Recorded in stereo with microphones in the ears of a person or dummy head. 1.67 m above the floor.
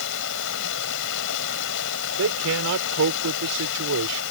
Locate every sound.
0.0 s running water: 65° left (ahead or behind)
2.2 s a man speaking: 90° right